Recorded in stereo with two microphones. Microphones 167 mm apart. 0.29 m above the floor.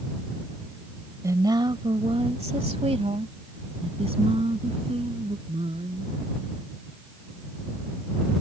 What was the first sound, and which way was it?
A woman speaking, 20° right (ahead or behind).